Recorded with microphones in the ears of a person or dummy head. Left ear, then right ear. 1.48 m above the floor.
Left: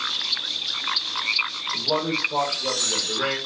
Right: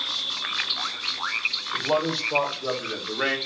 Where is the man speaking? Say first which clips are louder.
Left 3 dB; 45° right (ahead or behind), 3 m; by 3.4 s 25° right (ahead or behind), 1.2 m.